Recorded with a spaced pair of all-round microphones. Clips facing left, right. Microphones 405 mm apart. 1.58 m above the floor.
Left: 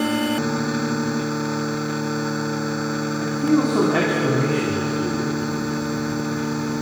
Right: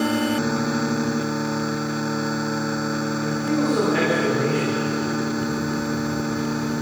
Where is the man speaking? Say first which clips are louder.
Left 5 dB; 80° left, 4 m.